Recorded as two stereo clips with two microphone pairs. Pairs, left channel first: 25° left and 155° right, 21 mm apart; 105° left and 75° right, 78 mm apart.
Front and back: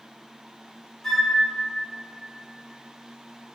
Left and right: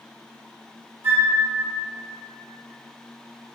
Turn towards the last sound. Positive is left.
turn(degrees=-20)